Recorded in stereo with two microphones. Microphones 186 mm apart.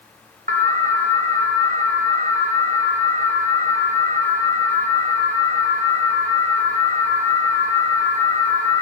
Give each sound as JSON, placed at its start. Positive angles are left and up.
{"t": 0.5, "sound": "an alarm", "side_deg": -45, "distance_m": 1.3}